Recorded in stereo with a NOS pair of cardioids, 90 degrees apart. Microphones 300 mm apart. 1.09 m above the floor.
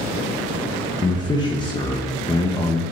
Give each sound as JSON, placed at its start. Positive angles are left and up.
{"t": 1.0, "sound": "a man speaking", "azimuth_deg": 15, "distance_m": 0.8}